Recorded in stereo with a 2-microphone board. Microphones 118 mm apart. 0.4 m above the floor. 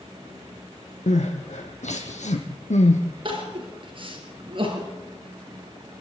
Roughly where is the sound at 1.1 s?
Left.